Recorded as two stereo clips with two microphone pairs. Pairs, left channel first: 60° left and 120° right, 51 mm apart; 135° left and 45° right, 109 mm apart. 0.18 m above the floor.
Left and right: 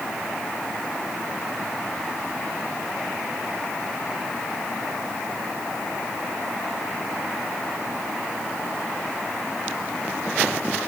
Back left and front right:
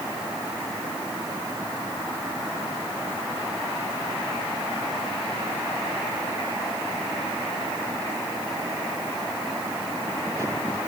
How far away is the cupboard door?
I don't hear a cupboard door.